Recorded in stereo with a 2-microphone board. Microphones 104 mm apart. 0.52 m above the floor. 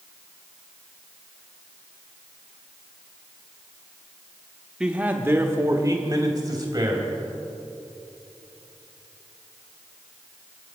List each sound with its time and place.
4.8 s a man speaking: 5° right (ahead or behind), 1.0 m; by 7.1 s 40° right (ahead or behind), 3 m